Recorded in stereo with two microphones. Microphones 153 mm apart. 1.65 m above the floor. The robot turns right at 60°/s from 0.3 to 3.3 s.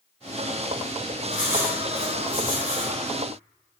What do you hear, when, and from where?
1.3 s writing: 175° right, 1.3 m; by 3.0 s 75° right, 1.3 m